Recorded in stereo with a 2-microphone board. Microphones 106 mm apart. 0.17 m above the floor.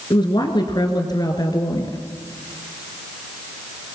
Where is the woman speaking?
45° left (ahead or behind), 2.5 m; by 2.0 s 35° left (ahead or behind), 3 m.